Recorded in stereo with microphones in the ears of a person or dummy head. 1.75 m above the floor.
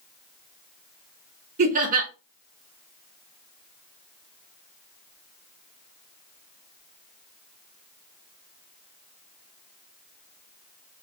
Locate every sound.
1.6 s laughter: 40° right (ahead or behind), 1.2 m